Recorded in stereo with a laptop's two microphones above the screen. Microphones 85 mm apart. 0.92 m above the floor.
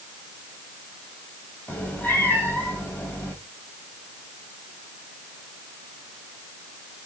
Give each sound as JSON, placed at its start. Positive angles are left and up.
{"t": 1.7, "sound": "a cat meowing", "side_deg": 25, "distance_m": 1.9}